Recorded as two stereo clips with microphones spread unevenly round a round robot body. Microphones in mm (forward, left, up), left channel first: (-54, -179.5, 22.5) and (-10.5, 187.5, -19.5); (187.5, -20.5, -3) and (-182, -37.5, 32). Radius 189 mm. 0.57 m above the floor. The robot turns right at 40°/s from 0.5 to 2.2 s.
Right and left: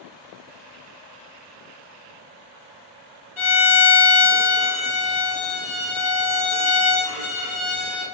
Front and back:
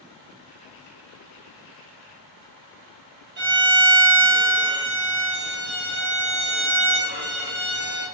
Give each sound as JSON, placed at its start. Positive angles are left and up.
{"t": 3.4, "sound": "a violin", "azimuth_deg": 125, "distance_m": 1.5}